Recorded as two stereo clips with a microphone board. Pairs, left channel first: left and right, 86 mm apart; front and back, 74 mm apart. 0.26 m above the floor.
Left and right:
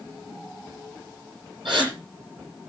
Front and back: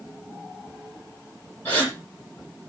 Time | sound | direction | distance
1.6 | a gasp | 65° right | 8 m